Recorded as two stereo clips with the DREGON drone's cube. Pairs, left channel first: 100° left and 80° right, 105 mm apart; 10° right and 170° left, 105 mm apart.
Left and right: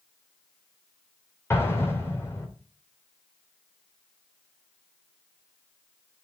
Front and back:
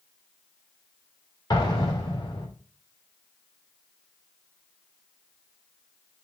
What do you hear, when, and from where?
1.5 s an explosion: 35° left, 3.5 m